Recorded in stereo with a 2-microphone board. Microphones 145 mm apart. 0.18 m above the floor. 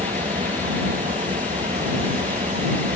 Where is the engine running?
55° right (ahead or behind).